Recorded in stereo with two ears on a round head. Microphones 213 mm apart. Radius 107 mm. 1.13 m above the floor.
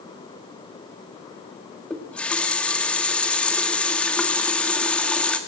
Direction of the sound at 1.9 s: 5° left (ahead or behind).